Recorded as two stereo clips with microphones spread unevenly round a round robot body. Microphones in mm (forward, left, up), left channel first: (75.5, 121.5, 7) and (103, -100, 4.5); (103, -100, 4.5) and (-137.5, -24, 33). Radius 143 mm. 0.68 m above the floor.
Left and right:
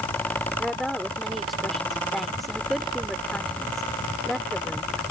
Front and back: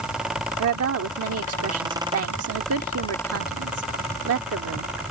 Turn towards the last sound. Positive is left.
turn(degrees=-175)